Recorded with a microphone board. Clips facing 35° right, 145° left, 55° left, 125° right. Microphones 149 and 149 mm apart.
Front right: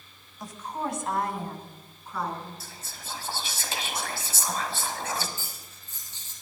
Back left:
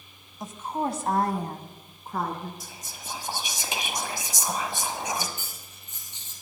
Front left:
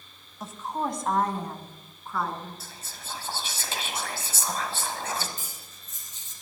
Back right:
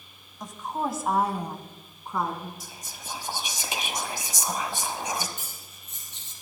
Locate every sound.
0.4 s a woman speaking: 130° left, 1.0 m; by 2.5 s 170° left, 2 m
2.6 s whispering: 170° right, 1.2 m
5.4 s cutlery clinking: 145° right, 3.5 m